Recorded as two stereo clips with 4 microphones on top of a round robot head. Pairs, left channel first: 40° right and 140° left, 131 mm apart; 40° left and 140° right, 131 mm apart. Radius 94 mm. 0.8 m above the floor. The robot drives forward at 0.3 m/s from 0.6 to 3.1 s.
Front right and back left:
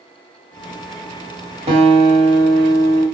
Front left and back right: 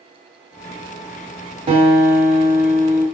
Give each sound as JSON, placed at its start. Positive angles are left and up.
{"t": 1.7, "sound": "a guitar", "azimuth_deg": 175, "distance_m": 1.3}